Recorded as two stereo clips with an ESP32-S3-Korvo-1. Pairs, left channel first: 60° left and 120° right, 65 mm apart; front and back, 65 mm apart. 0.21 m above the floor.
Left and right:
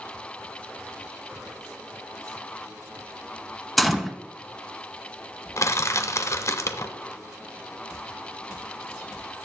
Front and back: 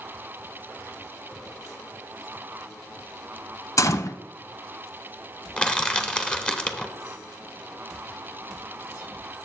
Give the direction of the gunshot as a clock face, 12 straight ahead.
1 o'clock.